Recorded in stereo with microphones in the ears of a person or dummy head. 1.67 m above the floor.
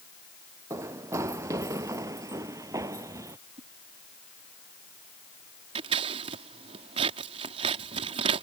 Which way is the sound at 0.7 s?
15° right (ahead or behind).